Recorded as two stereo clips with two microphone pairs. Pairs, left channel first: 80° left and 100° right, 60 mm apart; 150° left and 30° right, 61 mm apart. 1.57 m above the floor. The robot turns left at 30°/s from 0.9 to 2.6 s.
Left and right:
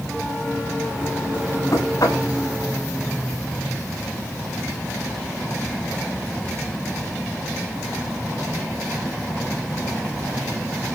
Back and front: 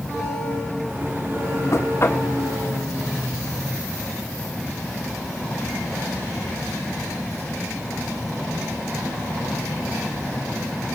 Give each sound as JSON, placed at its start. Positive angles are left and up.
{"t": 1.7, "sound": "knocking", "azimuth_deg": 110, "distance_m": 3.5}